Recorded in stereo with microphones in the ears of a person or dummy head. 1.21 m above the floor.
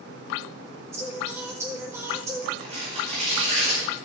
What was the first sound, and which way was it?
Singing, 10° right (ahead or behind).